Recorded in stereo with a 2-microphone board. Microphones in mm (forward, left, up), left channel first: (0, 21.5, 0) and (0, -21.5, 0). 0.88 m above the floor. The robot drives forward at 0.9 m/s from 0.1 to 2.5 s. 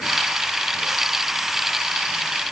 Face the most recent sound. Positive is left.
No sound to turn to.